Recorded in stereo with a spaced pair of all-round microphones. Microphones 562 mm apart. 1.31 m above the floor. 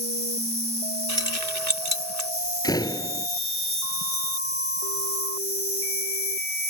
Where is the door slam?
5° left (ahead or behind).